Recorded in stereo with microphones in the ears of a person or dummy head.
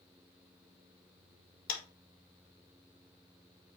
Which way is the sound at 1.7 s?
45° left (ahead or behind).